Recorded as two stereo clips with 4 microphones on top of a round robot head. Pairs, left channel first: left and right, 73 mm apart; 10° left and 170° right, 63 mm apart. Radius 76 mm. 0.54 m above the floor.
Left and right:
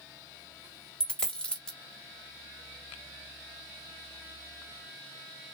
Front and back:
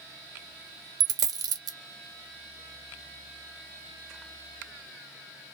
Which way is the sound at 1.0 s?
170° left.